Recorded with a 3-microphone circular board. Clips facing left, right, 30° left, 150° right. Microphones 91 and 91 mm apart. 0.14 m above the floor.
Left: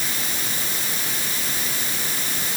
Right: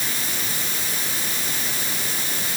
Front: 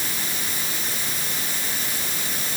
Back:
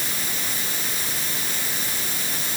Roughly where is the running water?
I don't hear running water.